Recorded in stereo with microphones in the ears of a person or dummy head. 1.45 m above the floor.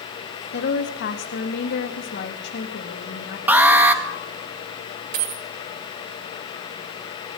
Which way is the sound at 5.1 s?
60° right (ahead or behind).